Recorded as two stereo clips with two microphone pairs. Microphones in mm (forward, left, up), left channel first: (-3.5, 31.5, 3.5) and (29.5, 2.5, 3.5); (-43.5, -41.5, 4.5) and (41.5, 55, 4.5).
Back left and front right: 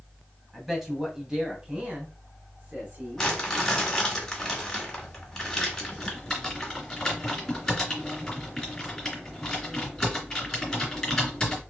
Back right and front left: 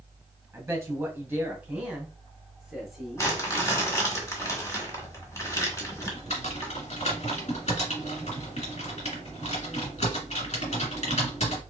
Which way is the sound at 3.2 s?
155° right.